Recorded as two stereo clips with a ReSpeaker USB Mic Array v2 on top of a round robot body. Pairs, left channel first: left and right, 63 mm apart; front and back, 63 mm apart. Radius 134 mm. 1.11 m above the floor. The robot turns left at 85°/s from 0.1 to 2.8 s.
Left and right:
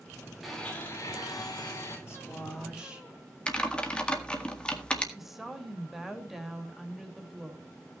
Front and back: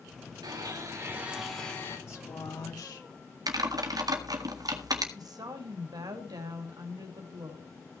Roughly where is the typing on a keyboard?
Behind.